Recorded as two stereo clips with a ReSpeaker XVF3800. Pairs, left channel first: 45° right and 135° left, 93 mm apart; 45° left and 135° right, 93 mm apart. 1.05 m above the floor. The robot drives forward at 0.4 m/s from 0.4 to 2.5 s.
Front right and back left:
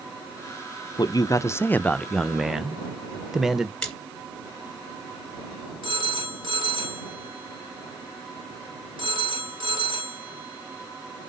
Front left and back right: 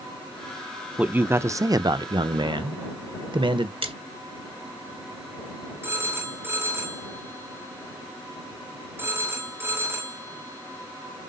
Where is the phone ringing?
160° left, 2.5 m.